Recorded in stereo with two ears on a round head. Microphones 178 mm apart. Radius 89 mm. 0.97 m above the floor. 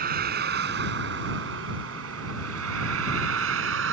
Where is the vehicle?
50° right (ahead or behind); by 3.9 s 75° right (ahead or behind).